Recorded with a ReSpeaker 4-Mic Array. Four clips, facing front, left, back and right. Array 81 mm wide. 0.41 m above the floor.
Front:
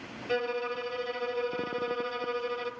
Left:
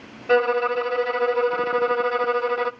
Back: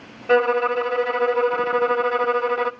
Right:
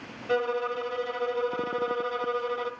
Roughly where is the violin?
Behind left.